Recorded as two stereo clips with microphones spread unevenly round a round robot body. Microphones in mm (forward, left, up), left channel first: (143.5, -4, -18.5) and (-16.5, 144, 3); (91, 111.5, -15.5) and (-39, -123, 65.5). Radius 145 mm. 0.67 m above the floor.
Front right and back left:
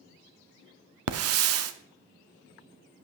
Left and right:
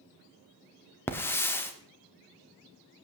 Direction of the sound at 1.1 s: 135° left.